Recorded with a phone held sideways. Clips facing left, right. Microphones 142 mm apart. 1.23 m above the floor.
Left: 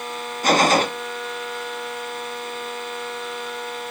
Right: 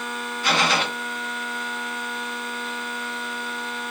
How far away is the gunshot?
About 0.8 m.